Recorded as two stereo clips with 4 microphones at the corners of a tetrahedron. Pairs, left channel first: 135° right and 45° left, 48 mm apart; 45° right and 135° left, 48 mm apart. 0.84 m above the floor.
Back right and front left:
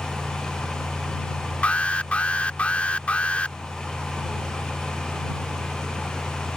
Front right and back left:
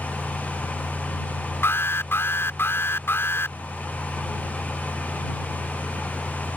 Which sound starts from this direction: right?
An alarm, at 1.6 s.